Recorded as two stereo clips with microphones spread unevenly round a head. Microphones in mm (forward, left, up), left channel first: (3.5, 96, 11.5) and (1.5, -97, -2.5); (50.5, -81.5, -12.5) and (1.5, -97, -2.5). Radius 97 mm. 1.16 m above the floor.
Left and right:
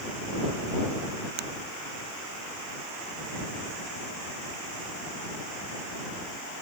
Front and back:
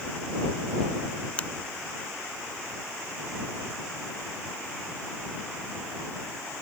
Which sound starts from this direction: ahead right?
A finger snap, at 1.4 s.